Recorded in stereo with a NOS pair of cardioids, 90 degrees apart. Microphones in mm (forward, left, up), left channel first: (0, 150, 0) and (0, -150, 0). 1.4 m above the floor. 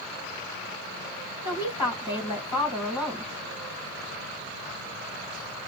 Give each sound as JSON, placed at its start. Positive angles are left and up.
{"t": 1.4, "sound": "a woman speaking", "azimuth_deg": 15, "distance_m": 1.8}